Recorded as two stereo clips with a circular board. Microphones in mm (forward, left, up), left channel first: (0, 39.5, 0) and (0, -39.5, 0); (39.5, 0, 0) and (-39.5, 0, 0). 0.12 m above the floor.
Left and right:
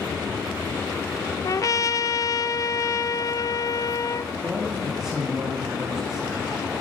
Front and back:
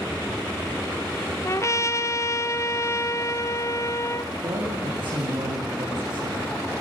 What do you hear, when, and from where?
1.4 s a trumpet: 50° left, 0.8 m
4.4 s a man speaking: 175° right, 8.5 m